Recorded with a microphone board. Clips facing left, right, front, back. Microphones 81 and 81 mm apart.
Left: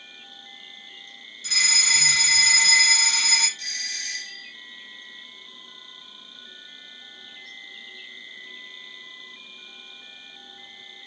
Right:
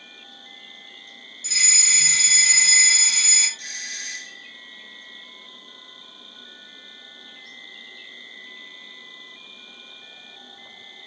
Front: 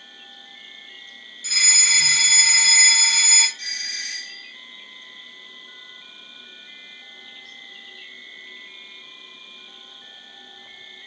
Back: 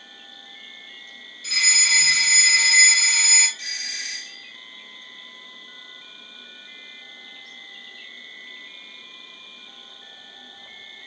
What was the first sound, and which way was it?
An insect, 90° left.